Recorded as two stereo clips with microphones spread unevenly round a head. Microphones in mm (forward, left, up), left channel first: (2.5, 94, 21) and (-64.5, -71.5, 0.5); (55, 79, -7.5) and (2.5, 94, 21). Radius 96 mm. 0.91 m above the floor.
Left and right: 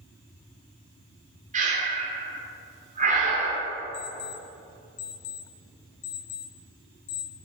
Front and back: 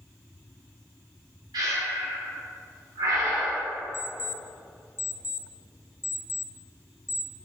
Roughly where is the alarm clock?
Ahead left.